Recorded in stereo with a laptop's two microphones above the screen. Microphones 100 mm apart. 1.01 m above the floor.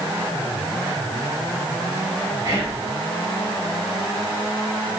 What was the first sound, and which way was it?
Whispering, 25° right (ahead or behind).